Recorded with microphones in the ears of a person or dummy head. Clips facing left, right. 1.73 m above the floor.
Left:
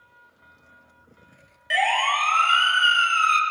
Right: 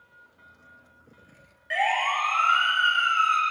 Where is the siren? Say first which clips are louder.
Left 2 dB; 50° left (ahead or behind), 3.5 m; by 3.4 s 75° left (ahead or behind), 2.5 m.